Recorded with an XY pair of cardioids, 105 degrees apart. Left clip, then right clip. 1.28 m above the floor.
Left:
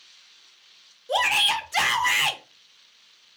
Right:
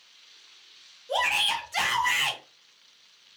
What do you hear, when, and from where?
1.1 s a shout: 30° left, 0.7 m